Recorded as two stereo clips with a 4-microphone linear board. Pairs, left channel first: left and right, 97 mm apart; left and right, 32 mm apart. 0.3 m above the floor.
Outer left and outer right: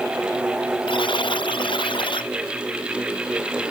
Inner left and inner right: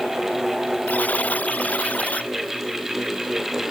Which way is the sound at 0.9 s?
60° left (ahead or behind).